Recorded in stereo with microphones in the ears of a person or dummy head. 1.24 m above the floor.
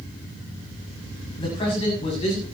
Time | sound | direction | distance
1.4 | a man speaking | 25° left (ahead or behind) | 7.5 m